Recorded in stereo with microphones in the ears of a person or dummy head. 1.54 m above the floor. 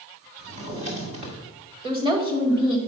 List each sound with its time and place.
0.4 s a drawer: 35° right (ahead or behind), 1.3 m
1.8 s a woman speaking: 30° right (ahead or behind), 1.7 m